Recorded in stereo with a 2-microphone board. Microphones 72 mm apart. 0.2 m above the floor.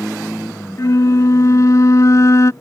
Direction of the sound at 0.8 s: 45° left (ahead or behind).